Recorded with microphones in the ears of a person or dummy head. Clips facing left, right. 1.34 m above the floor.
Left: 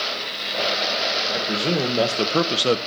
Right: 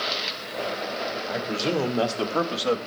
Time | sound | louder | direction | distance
1.3 | a man speaking | left 2 dB | 15° left (ahead or behind) | 1.7 m